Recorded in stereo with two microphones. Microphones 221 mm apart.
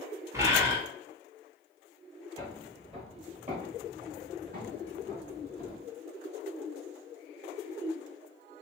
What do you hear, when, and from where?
0.3 s a bird: 15° right (ahead or behind), 0.8 m
2.4 s footsteps: 20° right (ahead or behind), 1.3 m; by 5.8 s 50° right (ahead or behind), 2.5 m